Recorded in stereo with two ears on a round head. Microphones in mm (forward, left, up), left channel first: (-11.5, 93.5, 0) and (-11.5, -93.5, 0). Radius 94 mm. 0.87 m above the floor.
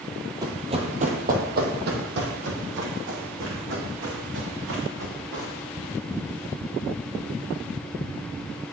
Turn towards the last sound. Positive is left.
turn(degrees=-70)  # may be behind; listen again after turning